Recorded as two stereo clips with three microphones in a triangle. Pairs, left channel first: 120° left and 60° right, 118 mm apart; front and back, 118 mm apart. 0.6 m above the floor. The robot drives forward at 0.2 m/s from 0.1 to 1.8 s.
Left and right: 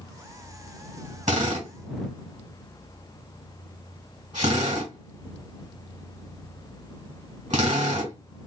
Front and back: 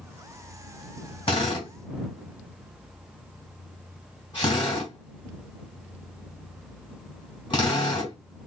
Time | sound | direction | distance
1.3 | a drill | 45° right | 2.5 m